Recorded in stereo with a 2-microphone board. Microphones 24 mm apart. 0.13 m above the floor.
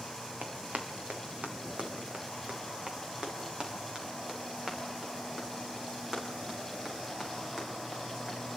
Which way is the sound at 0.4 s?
90° right.